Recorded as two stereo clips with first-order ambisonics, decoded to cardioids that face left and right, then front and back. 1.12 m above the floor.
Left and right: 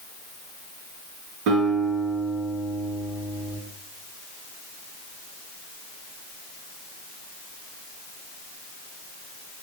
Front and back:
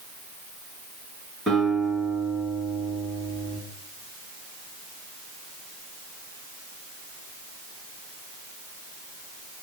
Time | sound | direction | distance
1.5 | a guitar | 100° right | 2.5 m